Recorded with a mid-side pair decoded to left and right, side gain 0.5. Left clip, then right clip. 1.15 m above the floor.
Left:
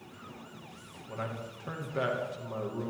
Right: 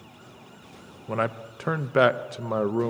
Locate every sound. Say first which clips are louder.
1.1 s a man speaking: right 11 dB; 70° right, 0.9 m